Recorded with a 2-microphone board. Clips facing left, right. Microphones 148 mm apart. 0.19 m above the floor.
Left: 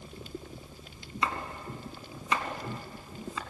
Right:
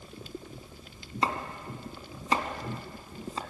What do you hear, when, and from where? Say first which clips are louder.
1.2 s chopping: right 2 dB; 35° right (ahead or behind), 1.9 m